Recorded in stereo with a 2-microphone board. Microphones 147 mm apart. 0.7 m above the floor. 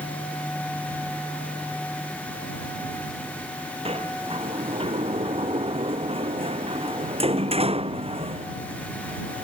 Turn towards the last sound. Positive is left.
turn(degrees=-40)  # may be behind; listen again after turning